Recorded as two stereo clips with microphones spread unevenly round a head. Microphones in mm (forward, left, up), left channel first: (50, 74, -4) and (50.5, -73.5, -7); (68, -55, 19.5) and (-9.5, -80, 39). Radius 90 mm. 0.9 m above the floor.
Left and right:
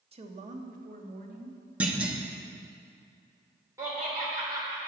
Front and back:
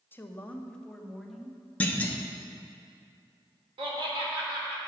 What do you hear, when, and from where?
0.1 s a woman speaking: 45° right, 1.1 m; by 1.6 s 75° right, 1.7 m
1.8 s a clunk: 15° right, 1.0 m
3.8 s laughter: 165° right, 3 m